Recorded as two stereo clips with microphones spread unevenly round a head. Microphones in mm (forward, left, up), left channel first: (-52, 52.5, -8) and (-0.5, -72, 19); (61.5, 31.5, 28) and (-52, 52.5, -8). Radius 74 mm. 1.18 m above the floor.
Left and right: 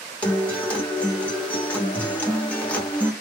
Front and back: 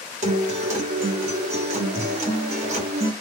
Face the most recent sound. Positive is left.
turn(degrees=-170)